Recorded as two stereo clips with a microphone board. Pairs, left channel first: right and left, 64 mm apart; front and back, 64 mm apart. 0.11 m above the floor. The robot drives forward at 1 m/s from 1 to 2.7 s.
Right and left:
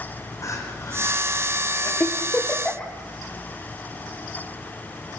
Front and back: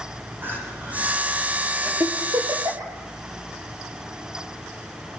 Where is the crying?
120° right, 6 m; by 1.9 s 130° right, 6.5 m.